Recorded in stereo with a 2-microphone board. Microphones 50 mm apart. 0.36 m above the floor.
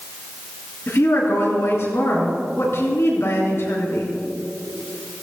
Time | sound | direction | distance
0.9 | a woman speaking | 55° left (ahead or behind) | 5 m